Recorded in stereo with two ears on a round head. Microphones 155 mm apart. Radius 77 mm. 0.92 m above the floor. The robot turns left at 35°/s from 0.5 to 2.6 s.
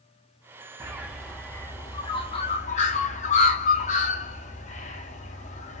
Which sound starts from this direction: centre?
A bird, at 0.8 s.